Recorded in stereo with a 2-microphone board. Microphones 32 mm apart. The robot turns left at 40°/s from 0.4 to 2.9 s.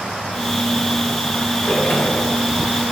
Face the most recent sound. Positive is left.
turn(degrees=75)